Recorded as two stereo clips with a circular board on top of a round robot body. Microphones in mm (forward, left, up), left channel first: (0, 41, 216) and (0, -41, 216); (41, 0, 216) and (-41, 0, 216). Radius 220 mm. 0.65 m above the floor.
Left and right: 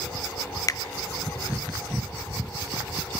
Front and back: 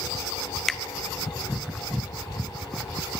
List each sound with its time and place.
0.7 s a finger snap: 85° left, 0.8 m